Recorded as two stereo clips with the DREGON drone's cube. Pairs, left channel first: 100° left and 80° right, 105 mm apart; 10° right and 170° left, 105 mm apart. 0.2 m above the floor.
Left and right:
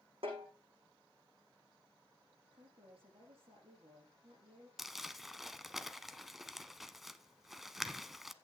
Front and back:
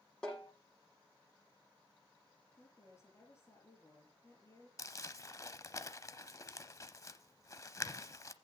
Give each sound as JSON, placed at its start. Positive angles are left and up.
{"t": 0.2, "sound": "a snare drum", "azimuth_deg": -95, "distance_m": 8.0}
{"t": 2.5, "sound": "a woman speaking", "azimuth_deg": -70, "distance_m": 6.0}
{"t": 4.8, "sound": "crumpling", "azimuth_deg": 5, "distance_m": 0.7}